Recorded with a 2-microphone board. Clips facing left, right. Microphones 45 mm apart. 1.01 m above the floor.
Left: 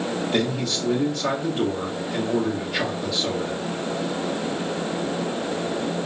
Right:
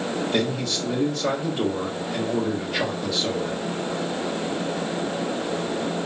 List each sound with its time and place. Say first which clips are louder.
0.3 s a man speaking: left 1 dB; 5° left (ahead or behind), 1.6 m